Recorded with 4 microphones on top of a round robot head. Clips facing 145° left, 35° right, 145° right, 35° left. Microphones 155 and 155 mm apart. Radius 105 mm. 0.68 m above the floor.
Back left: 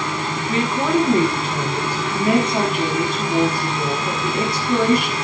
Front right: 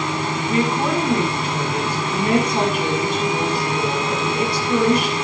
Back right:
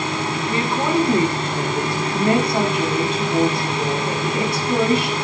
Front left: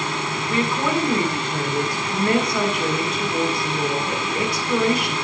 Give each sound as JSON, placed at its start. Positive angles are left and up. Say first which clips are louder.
{"t": 0.5, "sound": "a woman speaking", "louder": "back left 1 dB, back right 1 dB", "azimuth_deg": 150, "distance_m": 7.0}